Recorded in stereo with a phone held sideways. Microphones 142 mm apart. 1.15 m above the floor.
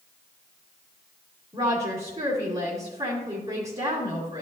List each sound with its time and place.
1.5 s a woman speaking: 45° right (ahead or behind), 2 m